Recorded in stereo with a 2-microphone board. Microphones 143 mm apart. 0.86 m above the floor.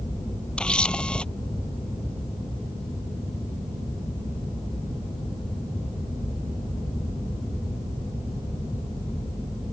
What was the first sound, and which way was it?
A camera shutter, 5° left (ahead or behind).